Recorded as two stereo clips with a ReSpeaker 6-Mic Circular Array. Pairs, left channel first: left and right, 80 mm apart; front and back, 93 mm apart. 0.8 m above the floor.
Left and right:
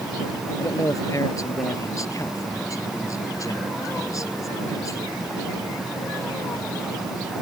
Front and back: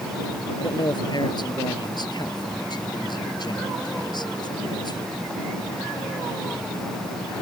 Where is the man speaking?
40° left.